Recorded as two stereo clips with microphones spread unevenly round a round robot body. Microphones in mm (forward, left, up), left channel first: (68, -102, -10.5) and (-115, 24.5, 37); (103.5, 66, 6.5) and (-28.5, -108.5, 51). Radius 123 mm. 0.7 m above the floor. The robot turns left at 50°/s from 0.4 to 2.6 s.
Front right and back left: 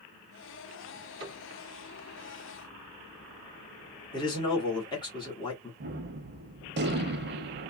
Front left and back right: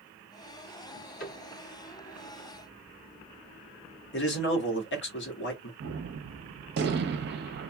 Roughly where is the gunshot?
Behind.